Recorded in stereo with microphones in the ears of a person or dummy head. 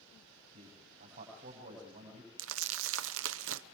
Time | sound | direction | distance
0.5 | a man speaking | 50° right (ahead or behind) | 6 m
2.4 | crumpling | 75° right (ahead or behind) | 0.7 m